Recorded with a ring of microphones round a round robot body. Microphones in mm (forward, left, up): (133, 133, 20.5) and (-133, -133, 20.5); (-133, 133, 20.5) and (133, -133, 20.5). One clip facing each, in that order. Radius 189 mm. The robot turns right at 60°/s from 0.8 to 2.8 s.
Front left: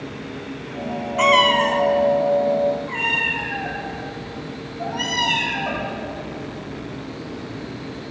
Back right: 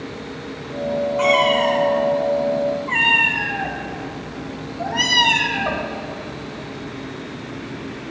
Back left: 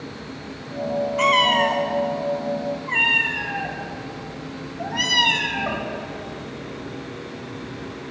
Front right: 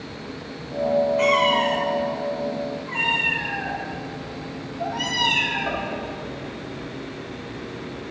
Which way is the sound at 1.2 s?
80° left.